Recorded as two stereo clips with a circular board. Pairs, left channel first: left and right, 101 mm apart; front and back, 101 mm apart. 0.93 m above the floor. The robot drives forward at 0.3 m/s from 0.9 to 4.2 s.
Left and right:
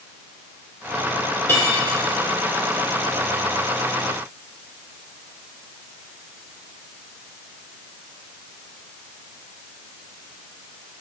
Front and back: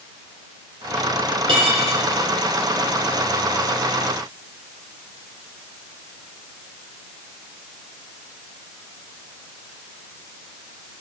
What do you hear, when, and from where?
1.5 s cutlery clinking: 155° left, 2.0 m; by 1.9 s 160° left, 2 m